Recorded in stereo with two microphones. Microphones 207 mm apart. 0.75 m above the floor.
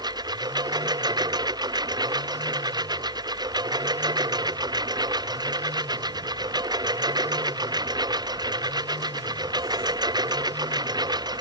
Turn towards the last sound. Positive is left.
turn(degrees=-20)  # may be behind; listen again after turning